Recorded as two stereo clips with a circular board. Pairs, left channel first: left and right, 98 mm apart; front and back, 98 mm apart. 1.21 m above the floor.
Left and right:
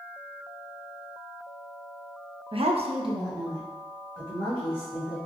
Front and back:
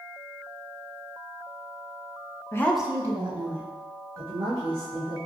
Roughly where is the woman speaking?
Ahead right.